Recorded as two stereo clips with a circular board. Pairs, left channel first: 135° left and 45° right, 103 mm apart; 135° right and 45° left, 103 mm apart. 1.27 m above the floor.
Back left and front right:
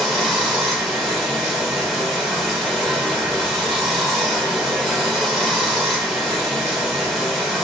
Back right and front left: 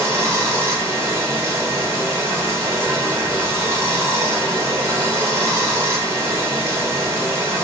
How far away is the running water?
About 1.0 m.